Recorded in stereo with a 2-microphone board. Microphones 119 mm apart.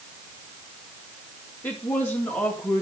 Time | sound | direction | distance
1.6 | a woman speaking | 15° left (ahead or behind) | 2.5 m